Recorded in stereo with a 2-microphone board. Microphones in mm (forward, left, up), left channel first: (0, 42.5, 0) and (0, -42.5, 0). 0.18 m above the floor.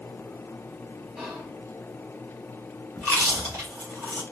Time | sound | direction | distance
1.2 | whispering | 10° right (ahead or behind) | 2.5 m
3.0 | chewing | 30° right (ahead or behind) | 2.5 m